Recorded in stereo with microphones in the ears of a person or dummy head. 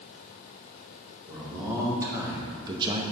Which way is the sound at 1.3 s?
15° right (ahead or behind).